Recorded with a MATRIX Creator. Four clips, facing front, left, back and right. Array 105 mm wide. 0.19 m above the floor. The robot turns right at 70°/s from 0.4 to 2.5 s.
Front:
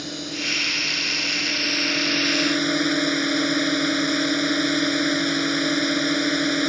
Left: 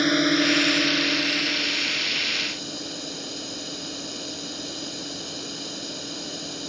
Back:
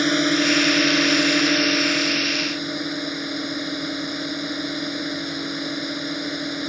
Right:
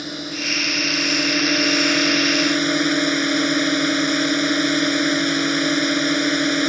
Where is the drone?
145° left; by 6.7 s 70° right.